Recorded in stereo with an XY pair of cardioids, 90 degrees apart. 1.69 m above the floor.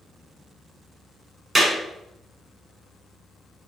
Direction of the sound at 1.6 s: 30° right.